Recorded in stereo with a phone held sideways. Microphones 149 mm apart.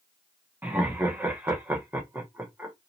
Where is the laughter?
15° right (ahead or behind), 0.9 m.